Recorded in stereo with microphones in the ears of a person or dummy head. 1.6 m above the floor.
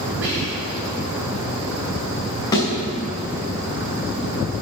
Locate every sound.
0.2 s whispering: 75° right (ahead or behind), 6 m
2.5 s a thud: 15° left (ahead or behind), 6 m